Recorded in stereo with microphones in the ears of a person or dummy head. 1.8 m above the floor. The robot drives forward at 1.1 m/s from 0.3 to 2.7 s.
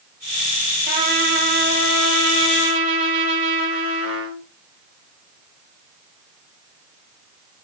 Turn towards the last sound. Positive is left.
turn(degrees=-80)